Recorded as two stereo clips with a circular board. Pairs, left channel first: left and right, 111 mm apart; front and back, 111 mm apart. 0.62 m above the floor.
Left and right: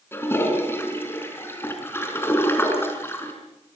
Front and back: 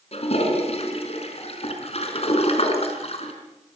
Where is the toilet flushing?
20° left, 5 m.